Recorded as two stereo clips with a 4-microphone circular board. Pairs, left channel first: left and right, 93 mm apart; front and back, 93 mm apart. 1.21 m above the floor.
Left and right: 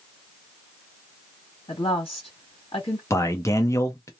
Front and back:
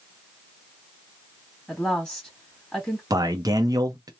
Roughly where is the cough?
No cough in this recording.